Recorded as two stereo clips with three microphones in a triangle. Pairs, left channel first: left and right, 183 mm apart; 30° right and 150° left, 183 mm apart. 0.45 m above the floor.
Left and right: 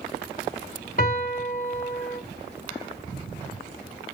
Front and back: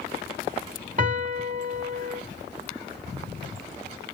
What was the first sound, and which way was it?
A piano, 115° left.